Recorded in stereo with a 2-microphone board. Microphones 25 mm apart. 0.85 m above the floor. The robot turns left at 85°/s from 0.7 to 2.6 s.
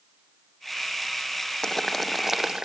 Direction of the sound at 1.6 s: 25° left (ahead or behind).